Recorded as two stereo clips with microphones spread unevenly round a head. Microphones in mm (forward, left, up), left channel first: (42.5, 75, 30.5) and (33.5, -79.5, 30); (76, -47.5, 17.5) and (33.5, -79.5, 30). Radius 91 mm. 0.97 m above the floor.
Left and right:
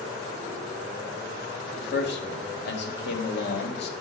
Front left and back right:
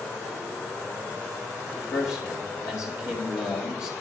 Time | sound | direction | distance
1.8 | a man speaking | 85° left | 1.8 m